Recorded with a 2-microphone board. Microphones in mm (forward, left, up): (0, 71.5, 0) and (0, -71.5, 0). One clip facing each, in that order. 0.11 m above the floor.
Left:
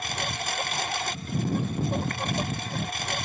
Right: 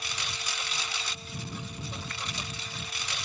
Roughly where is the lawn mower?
Left.